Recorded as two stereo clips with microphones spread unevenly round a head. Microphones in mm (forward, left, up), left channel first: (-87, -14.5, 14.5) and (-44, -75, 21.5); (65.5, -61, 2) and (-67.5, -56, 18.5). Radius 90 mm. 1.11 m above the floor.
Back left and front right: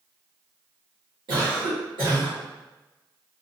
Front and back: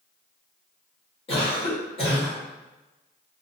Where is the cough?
50° right, 1.9 m.